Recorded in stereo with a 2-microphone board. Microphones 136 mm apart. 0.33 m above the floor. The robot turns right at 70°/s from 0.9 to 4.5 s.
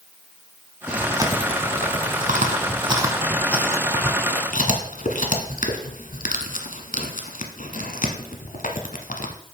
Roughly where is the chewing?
Centre.